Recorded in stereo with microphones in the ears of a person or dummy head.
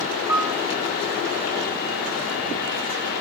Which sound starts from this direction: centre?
A piano, at 0.3 s.